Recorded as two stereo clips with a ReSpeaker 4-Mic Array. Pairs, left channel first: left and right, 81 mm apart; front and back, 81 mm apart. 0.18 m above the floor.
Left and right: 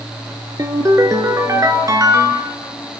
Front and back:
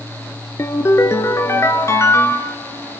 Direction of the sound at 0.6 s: 50° right.